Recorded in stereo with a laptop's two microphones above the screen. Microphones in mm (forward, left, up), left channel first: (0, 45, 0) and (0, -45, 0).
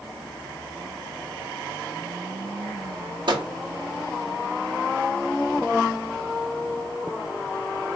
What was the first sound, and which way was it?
A microwave, 60° right (ahead or behind).